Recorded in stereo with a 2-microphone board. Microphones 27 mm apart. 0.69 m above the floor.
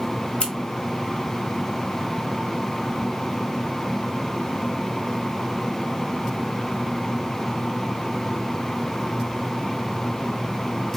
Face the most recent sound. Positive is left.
turn(degrees=40)  # may be behind; listen again after turning